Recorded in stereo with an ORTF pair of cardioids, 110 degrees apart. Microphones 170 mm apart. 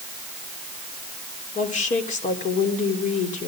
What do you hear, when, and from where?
1.6 s a woman speaking: 50° left, 3.5 m